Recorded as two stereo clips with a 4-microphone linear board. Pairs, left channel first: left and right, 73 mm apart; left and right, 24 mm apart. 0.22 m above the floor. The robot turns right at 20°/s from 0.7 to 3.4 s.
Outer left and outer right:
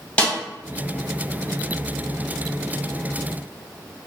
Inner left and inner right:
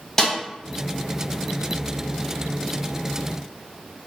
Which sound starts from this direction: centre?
A snare drum, at 0.2 s.